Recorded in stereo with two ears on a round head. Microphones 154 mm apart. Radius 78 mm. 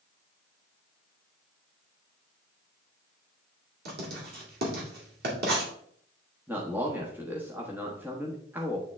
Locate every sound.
3.9 s writing: 60° right (ahead or behind), 2 m
6.5 s a man speaking: 10° right (ahead or behind), 1.1 m